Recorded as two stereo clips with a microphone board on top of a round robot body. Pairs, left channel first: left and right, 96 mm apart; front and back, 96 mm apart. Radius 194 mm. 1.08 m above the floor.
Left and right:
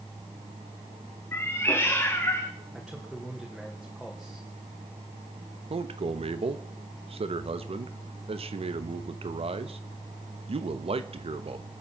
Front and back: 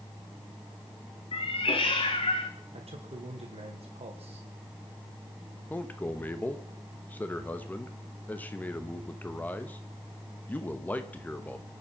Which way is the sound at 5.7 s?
75° right.